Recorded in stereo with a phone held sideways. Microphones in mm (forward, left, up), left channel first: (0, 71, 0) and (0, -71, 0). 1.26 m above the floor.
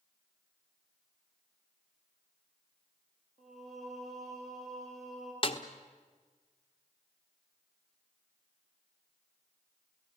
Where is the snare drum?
40° left (ahead or behind), 1.3 m.